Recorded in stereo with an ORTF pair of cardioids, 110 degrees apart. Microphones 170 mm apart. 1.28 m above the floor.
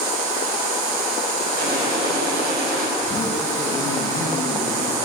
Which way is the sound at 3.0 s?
20° left.